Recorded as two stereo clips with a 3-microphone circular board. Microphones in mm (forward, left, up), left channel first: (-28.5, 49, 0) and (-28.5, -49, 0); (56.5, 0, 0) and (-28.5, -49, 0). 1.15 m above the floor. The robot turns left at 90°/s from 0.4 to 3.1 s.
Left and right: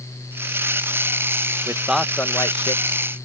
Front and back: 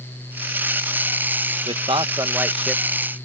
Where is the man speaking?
145° right; by 2.8 s 105° left.